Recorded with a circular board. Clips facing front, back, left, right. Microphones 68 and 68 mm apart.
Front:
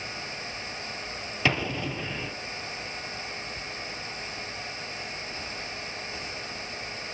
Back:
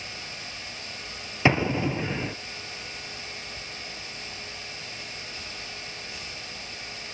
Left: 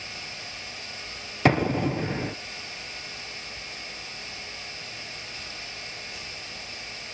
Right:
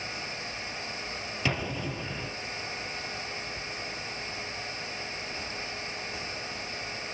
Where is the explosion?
115° left, 1.5 m.